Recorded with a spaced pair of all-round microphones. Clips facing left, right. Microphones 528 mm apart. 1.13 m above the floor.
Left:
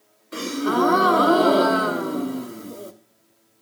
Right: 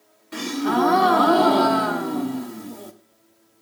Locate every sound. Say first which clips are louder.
0.3 s a gasp: even; 15° right (ahead or behind), 0.7 m